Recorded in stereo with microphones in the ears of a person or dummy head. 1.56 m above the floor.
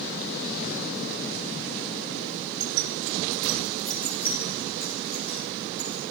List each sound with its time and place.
2.6 s keys jangling: 70° right (ahead or behind), 1.4 m; by 6.0 s 35° left (ahead or behind), 4.5 m